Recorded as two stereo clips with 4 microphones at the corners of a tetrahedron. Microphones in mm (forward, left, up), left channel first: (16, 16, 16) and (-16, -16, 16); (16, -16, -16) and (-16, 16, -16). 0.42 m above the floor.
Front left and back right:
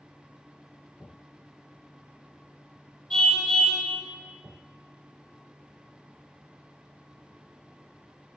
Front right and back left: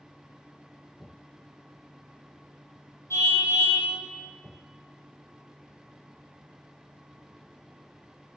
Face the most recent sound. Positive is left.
turn(degrees=-30)